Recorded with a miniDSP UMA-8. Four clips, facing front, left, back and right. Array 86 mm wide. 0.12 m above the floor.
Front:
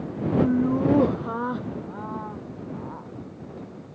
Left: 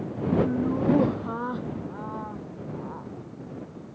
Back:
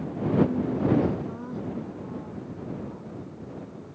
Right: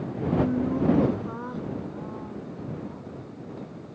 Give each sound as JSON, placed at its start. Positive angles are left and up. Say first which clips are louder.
{"t": 0.4, "sound": "laughter", "louder": "right 1 dB, front 4 dB", "azimuth_deg": 10}